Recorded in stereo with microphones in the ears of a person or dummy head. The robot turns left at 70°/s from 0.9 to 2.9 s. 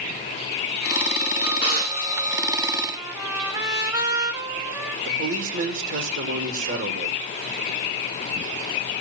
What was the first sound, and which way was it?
A drawer, 15° right (ahead or behind).